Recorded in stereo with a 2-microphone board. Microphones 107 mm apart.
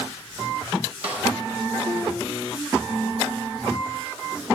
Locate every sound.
1.0 s a snare drum: 70° right (ahead or behind), 1.7 m